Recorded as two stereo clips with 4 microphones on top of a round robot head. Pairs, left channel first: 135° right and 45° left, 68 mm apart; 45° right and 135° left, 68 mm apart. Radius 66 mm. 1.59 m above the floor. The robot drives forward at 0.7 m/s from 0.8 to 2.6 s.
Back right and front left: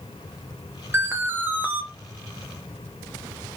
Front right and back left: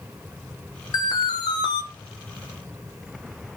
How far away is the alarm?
About 1.3 m.